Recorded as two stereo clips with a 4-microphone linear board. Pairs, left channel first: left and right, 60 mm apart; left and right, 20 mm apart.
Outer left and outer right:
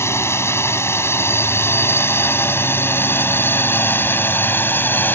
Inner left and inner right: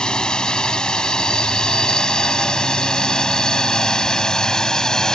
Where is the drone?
45° left (ahead or behind); by 5.2 s 35° left (ahead or behind).